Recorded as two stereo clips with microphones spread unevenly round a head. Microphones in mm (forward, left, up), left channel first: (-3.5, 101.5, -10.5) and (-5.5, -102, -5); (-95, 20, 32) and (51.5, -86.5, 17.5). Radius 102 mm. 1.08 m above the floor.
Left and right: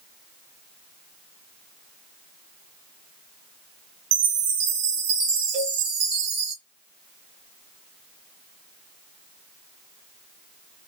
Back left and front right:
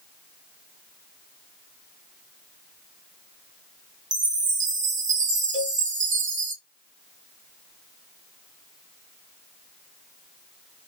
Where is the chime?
70° right, 1.4 m.